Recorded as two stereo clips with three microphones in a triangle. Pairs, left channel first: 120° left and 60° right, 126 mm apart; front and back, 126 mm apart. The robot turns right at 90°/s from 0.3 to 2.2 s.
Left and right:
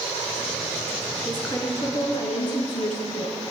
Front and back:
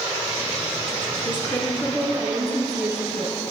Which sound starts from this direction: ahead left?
A woman speaking, at 1.2 s.